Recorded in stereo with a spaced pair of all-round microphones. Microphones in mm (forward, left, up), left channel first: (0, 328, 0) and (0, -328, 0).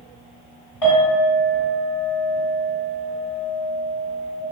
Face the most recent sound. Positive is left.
turn(degrees=45)  # may be behind; listen again after turning